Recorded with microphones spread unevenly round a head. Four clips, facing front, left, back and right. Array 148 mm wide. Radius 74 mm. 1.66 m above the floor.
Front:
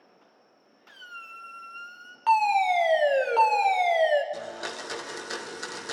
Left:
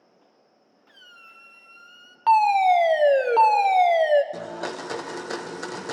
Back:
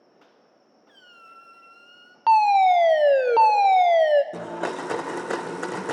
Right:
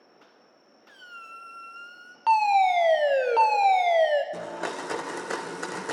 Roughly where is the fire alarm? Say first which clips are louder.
Left 3 dB, back 6 dB; behind.